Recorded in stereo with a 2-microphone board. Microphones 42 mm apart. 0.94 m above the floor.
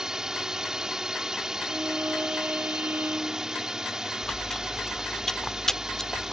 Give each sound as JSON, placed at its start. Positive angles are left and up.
{"t": 0.0, "sound": "a drone", "side_deg": -15}
{"t": 1.7, "sound": "a violin", "side_deg": -50}
{"t": 4.2, "sound": "chewing", "side_deg": 10}